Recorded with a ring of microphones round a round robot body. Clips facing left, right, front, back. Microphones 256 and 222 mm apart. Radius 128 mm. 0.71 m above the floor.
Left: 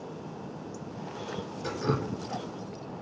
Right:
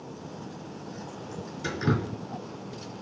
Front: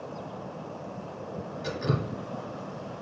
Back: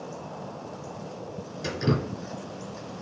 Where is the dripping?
135° right, 3 m.